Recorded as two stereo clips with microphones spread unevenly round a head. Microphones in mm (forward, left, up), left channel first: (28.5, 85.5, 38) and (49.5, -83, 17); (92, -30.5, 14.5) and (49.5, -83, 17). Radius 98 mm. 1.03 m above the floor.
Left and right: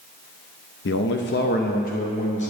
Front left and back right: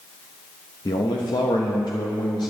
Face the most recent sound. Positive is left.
turn(degrees=50)